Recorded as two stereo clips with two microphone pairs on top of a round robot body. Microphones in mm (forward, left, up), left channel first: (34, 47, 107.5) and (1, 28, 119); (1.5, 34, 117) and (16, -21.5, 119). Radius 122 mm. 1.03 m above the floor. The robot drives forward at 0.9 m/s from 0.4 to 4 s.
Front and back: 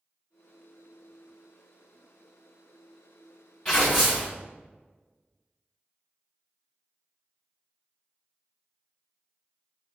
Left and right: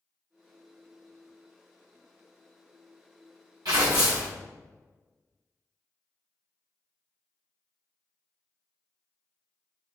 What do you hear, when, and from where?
3.6 s tearing paper: 75° right, 0.7 m; by 4.3 s 120° right, 0.7 m